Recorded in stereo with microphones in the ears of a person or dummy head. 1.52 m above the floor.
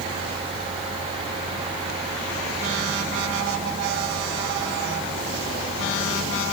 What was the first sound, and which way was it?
Only background noise.